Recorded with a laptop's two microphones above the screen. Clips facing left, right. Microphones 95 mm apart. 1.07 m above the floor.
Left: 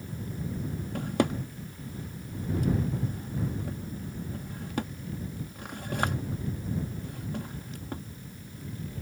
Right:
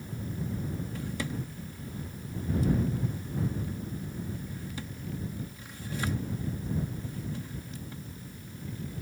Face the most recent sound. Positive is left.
turn(degrees=55)  # may be behind; listen again after turning